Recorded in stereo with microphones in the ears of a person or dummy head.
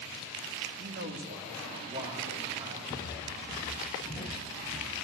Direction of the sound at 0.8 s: 55° right (ahead or behind).